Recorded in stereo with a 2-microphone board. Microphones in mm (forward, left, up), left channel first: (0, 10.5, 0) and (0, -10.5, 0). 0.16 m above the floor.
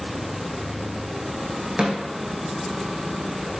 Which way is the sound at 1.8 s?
60° right (ahead or behind).